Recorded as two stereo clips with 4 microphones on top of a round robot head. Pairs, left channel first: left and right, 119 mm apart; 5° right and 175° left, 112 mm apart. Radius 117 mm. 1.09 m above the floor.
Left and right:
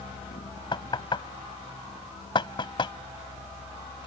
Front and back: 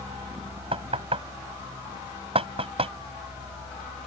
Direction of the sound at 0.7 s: 140° left.